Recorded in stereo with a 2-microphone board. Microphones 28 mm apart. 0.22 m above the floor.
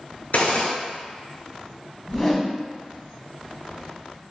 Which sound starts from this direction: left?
A gunshot, at 0.3 s.